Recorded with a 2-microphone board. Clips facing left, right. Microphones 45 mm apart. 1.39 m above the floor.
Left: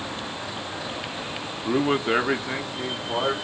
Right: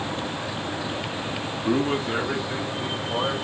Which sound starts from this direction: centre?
A man speaking, at 1.6 s.